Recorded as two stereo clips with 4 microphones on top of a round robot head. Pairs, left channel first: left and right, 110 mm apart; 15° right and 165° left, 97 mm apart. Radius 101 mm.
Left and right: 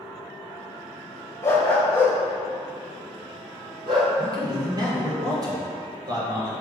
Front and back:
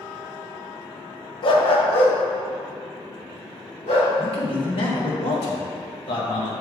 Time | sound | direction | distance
1.4 | a dog barking | 25° left | 0.6 m
4.2 | a man speaking | 35° right | 1.3 m